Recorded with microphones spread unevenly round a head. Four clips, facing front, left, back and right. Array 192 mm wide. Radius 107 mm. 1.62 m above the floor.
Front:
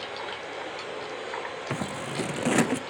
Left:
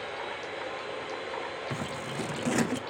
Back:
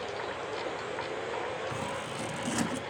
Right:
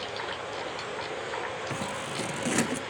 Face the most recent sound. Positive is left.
turn(degrees=-10)